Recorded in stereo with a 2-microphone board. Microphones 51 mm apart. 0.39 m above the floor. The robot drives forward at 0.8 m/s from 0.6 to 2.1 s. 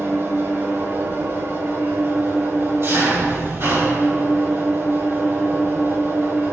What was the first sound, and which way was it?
An engine running, 60° right (ahead or behind).